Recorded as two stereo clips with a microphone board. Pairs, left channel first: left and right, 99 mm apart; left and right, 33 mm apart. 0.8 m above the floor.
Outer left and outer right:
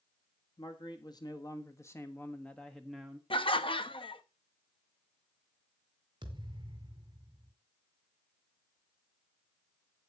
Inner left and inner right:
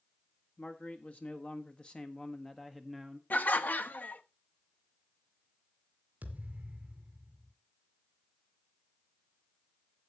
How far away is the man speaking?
About 1.6 m.